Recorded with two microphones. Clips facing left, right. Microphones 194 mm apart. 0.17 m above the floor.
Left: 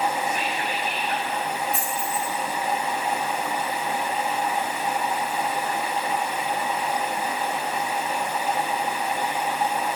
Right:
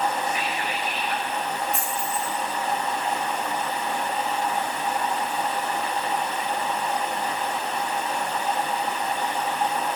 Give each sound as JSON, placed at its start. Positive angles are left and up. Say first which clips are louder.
{"t": 0.3, "sound": "whispering", "louder": "left 1 dB", "side_deg": 50, "distance_m": 3.5}
{"t": 1.7, "sound": "a dropped coin", "louder": "left 1 dB", "side_deg": 0, "distance_m": 3.5}